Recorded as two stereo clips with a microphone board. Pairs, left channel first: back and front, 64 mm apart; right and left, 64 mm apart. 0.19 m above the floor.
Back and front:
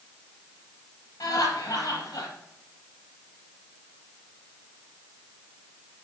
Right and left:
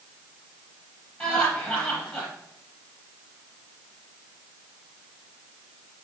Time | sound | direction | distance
1.2 | laughter | 155° right | 4 m